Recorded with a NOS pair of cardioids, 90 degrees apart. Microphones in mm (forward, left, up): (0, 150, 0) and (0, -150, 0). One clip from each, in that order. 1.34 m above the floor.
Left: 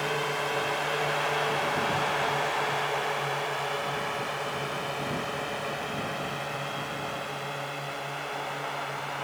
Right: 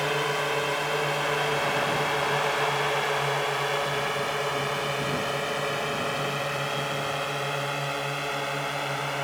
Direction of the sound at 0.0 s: 20° right.